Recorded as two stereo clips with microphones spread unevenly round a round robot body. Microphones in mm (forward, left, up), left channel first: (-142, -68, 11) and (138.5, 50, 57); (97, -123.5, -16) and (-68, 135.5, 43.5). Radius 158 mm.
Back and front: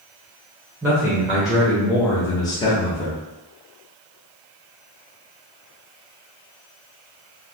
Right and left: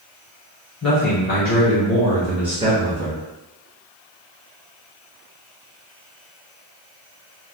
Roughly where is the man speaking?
Ahead right.